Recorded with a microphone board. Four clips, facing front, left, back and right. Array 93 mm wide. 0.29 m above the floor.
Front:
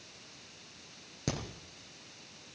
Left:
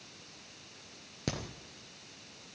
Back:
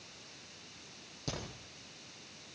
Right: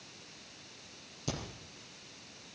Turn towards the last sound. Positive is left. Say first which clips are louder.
# left 2 dB, front 5 dB
turn(degrees=55)